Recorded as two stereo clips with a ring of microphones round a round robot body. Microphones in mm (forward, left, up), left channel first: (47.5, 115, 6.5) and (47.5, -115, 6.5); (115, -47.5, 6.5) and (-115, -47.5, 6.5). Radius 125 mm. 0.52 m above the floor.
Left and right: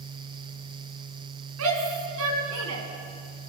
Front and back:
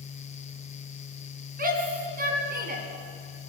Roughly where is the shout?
Behind right.